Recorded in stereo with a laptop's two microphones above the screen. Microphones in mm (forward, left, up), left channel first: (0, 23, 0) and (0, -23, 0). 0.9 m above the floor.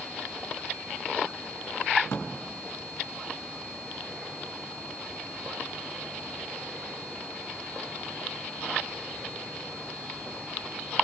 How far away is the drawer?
About 3.5 m.